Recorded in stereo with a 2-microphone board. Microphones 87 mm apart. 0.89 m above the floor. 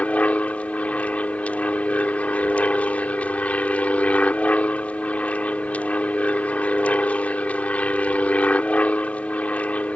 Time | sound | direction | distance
0.0 | an aircraft | 15° left (ahead or behind) | ?